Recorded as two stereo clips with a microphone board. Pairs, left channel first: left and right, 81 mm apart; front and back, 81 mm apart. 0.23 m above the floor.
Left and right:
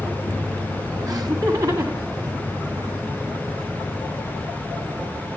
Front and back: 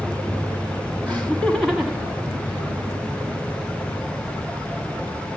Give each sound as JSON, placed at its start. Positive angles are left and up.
{"t": 1.1, "sound": "laughter", "azimuth_deg": -70, "distance_m": 2.5}